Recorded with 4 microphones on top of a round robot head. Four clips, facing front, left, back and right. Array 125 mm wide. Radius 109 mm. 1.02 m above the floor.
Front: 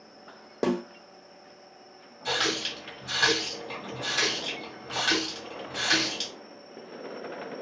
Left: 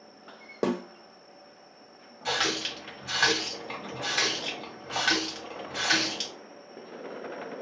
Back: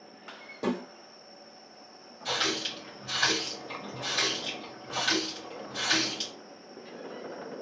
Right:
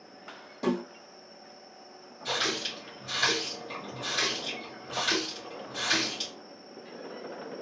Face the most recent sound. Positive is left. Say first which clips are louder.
# left 2 dB, front 2 dB
turn(degrees=85)